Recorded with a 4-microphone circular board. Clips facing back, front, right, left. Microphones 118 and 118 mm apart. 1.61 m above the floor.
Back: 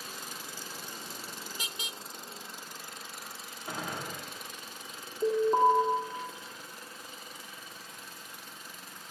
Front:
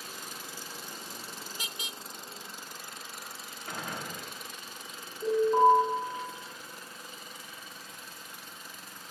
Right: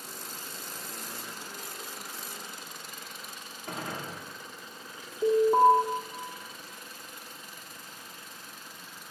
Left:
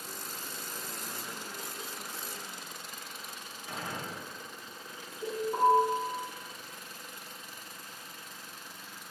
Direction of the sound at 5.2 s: 125° right.